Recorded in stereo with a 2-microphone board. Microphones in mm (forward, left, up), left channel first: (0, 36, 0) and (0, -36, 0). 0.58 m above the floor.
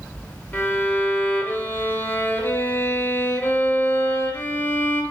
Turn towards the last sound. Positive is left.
turn(degrees=25)  # may be behind; listen again after turning